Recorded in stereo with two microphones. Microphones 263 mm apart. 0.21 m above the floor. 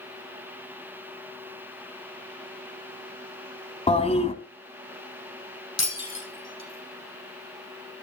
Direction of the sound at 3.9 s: 25° left (ahead or behind).